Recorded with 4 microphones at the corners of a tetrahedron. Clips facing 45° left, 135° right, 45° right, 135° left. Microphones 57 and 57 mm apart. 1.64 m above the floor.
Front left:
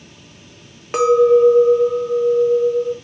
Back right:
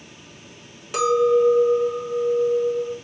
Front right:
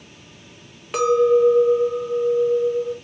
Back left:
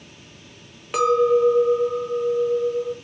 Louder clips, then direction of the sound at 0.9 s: Front left 6 dB, front right 1 dB; 50° left.